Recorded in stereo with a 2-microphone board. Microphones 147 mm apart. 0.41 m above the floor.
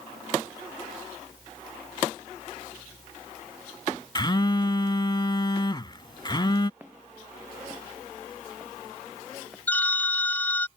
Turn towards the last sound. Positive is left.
turn(degrees=15)  # may be behind; listen again after turning